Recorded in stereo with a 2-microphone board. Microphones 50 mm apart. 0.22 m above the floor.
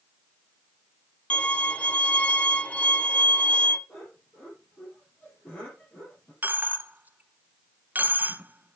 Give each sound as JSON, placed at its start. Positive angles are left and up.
{"t": 1.3, "sound": "a violin", "side_deg": 25, "distance_m": 0.5}
{"t": 3.9, "sound": "laughter", "side_deg": 35, "distance_m": 5.5}
{"t": 6.4, "sound": "a dropped coin", "side_deg": -30, "distance_m": 0.7}